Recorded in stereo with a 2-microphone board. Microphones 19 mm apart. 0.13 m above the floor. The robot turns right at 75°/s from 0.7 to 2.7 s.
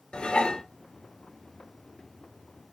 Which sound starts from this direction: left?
Dishes clattering, at 0.1 s.